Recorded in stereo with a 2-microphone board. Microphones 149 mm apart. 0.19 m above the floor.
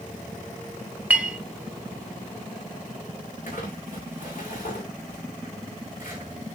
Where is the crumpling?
65° left (ahead or behind), 3.5 m.